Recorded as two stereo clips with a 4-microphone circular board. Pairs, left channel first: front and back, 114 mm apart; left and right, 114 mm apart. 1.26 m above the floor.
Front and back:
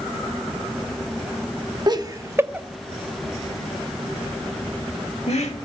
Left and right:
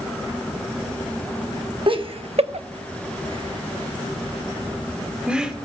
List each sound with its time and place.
1.9 s laughter: 130° right, 0.9 m; by 5.5 s 5° right, 1.6 m